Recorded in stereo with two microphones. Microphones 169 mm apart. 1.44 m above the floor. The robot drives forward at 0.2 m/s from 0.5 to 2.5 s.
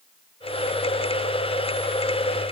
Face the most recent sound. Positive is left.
No sound to turn to.